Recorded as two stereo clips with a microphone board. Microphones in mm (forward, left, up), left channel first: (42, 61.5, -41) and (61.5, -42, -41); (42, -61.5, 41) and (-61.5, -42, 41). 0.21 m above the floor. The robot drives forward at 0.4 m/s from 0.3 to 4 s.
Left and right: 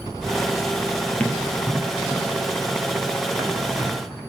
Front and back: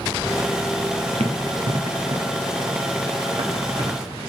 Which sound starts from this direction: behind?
Running footsteps, at 1.2 s.